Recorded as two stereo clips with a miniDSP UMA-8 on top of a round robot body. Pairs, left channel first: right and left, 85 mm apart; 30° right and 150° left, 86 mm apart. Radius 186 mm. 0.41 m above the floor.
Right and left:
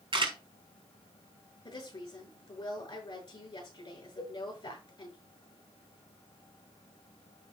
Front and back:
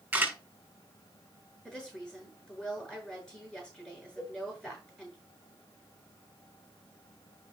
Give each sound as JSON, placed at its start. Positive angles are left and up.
{"t": 0.1, "sound": "a camera shutter", "azimuth_deg": 75, "distance_m": 4.5}
{"t": 1.6, "sound": "a woman speaking", "azimuth_deg": -110, "distance_m": 7.5}
{"t": 4.2, "sound": "a cowbell", "azimuth_deg": -125, "distance_m": 7.0}